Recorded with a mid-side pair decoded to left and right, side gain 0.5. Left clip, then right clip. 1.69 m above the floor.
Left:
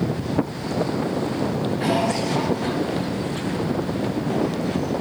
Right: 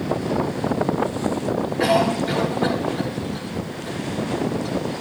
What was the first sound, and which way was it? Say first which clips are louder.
A cough: right 4 dB; 60° right.